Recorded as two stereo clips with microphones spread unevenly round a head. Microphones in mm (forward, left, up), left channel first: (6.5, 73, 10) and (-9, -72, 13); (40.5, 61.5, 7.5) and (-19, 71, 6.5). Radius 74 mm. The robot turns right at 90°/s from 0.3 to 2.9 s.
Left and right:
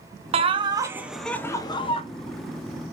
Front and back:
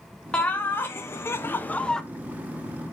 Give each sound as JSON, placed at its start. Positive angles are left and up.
{"t": 0.3, "sound": "laughter", "azimuth_deg": -85, "distance_m": 0.5}